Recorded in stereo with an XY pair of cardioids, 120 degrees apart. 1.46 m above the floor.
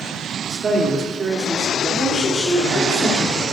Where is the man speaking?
25° right, 0.6 m.